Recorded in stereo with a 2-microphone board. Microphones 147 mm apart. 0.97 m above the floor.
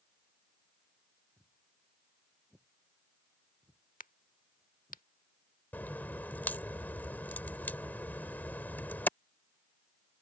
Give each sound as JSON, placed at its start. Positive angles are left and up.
{"t": 1.4, "sound": "footsteps", "side_deg": -10}
{"t": 4.0, "sound": "a crack", "side_deg": 65}
{"t": 5.7, "sound": "a crack", "side_deg": 10}